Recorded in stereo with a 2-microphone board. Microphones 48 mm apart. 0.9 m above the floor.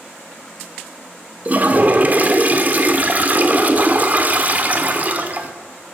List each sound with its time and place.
1.4 s a toilet flushing: 40° right (ahead or behind), 1.2 m